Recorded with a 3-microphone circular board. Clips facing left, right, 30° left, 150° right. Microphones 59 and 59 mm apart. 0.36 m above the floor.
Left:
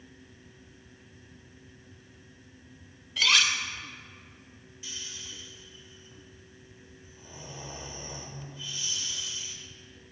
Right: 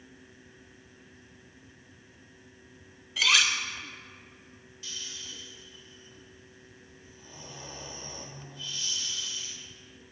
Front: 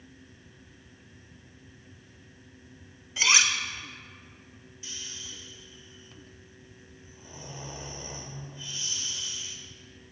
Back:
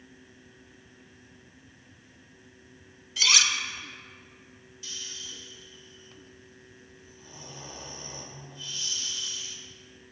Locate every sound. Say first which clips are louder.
3.2 s cutlery clinking: even, front 1 dB; 5° right, 0.5 m
4.8 s snoring: even, back 1 dB; 45° left, 1.0 m